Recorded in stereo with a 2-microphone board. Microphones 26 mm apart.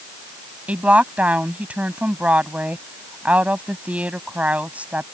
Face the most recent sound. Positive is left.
turn(degrees=-70)  # may be behind; listen again after turning